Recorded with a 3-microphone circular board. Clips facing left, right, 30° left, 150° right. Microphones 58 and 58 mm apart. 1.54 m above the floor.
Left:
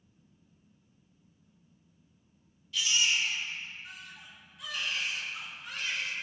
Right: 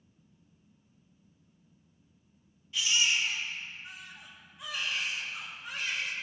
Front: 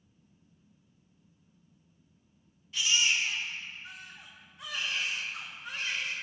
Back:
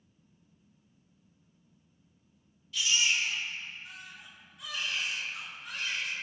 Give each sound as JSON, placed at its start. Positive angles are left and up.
{"t": 2.7, "sound": "a baby crying", "azimuth_deg": -25, "distance_m": 1.4}